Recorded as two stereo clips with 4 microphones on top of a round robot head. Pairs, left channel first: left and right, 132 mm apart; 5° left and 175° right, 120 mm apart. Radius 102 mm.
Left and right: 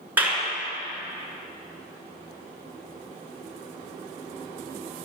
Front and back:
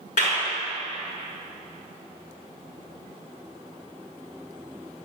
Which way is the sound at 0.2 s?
15° right.